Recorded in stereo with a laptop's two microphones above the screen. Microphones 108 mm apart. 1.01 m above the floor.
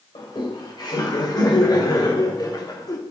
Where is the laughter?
45° left (ahead or behind), 4 m; by 3.0 s 35° left (ahead or behind), 1.8 m.